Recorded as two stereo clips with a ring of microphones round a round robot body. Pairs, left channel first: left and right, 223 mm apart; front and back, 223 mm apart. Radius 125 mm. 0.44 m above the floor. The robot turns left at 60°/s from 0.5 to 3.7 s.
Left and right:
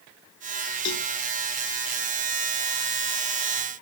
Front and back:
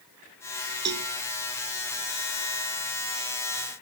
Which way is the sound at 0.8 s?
140° left.